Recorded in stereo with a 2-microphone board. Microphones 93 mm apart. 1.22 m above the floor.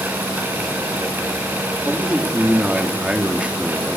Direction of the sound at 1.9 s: 10° right (ahead or behind).